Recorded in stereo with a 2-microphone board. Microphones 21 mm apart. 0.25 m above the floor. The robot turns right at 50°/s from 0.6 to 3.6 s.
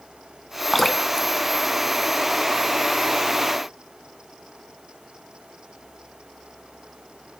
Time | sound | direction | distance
0.7 | dripping | 5° left (ahead or behind) | 1.6 m